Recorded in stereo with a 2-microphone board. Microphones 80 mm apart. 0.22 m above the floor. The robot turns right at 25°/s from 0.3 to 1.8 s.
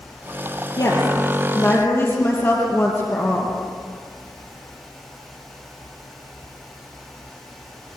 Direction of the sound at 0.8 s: 55° left (ahead or behind).